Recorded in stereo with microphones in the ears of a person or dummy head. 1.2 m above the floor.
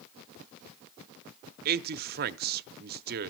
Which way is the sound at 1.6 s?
50° right (ahead or behind).